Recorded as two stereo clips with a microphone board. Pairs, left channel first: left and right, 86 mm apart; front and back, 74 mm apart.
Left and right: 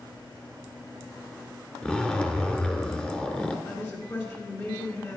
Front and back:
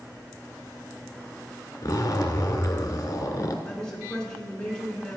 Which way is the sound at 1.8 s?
15° left.